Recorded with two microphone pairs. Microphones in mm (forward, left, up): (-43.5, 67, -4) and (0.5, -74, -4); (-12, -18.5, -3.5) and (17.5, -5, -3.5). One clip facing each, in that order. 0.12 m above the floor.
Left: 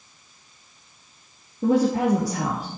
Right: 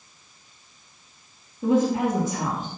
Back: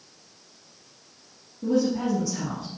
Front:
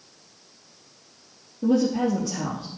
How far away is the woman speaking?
About 2.5 m.